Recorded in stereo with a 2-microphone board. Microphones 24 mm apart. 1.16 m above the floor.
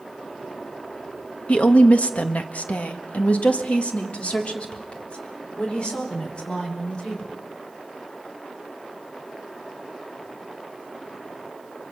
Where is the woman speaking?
55° left (ahead or behind), 1.7 m; by 7.3 s 35° left (ahead or behind), 5.5 m.